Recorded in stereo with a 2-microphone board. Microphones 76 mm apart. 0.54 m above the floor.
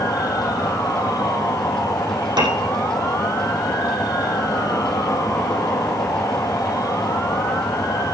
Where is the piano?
65° right (ahead or behind), 5 m.